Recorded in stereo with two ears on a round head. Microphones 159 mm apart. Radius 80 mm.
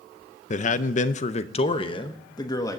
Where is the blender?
I don't hear a blender.